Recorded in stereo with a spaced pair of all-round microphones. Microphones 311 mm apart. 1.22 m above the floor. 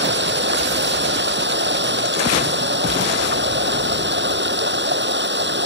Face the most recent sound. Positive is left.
turn(degrees=-35)  # may be behind; listen again after turning